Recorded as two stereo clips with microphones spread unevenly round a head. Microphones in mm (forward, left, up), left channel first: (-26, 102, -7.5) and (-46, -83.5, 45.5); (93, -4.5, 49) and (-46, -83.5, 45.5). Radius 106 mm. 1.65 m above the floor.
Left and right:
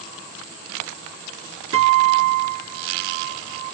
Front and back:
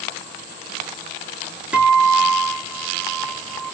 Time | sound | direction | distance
1.7 | a guitar | 65° right | 3 m